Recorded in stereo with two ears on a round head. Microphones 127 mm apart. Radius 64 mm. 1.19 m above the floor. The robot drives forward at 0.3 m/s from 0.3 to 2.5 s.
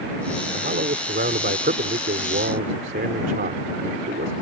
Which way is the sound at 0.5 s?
60° right (ahead or behind).